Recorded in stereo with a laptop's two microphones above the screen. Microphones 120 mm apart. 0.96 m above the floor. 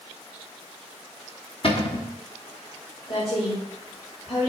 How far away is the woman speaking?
About 2.5 m.